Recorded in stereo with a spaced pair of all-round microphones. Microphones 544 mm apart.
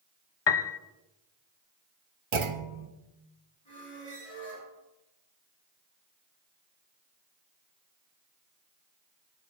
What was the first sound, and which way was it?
A piano, 55° left (ahead or behind).